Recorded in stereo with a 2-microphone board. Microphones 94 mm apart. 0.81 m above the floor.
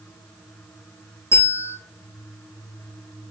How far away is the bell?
About 5 m.